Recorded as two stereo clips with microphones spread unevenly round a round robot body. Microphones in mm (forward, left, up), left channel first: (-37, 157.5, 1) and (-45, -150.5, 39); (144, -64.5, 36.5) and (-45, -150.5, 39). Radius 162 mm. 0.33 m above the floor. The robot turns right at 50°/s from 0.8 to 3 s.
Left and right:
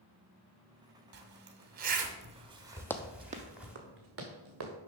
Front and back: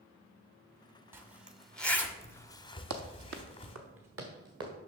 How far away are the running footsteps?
About 0.7 m.